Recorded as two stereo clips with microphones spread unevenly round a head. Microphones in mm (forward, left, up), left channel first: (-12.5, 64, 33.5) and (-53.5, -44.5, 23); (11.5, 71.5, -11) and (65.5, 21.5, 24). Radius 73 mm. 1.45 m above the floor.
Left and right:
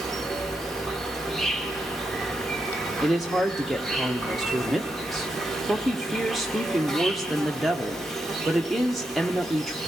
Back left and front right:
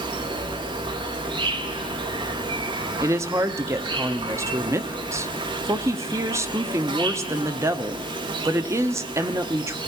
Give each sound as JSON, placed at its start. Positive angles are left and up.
{"t": 0.0, "sound": "an insect", "azimuth_deg": -20, "distance_m": 1.0}
{"t": 3.0, "sound": "a woman speaking", "azimuth_deg": -20, "distance_m": 0.7}